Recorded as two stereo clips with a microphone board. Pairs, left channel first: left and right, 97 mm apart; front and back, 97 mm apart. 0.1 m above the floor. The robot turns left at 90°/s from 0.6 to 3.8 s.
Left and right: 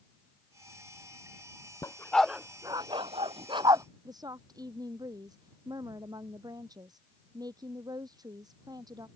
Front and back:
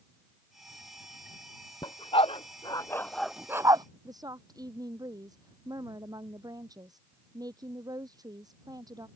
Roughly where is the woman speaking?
Behind right.